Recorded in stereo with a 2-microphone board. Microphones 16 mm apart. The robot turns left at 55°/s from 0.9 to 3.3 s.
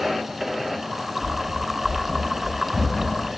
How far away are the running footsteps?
About 1.6 m.